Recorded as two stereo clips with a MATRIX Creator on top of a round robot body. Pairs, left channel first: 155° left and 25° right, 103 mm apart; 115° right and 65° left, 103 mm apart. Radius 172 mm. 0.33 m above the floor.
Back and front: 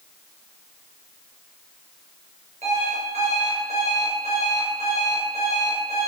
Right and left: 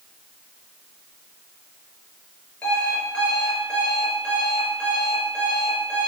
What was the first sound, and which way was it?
An alarm clock, 30° right.